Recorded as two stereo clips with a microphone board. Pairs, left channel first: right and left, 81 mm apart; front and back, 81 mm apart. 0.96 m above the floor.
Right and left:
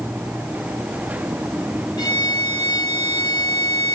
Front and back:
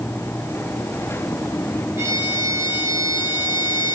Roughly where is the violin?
Behind right.